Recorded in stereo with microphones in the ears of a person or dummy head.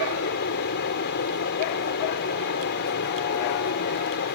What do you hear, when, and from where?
0.0 s a fan: 55° left (ahead or behind)